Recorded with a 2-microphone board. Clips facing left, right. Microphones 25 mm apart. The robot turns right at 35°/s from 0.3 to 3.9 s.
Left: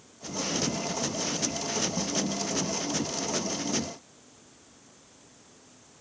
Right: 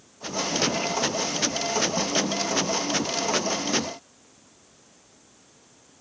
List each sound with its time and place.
Only background noise.